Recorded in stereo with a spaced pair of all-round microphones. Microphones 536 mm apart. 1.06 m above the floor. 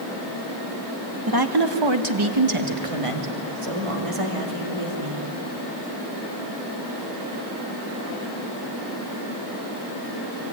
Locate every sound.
1.3 s a woman speaking: 40° right (ahead or behind), 1.1 m; by 5.3 s 80° right, 3 m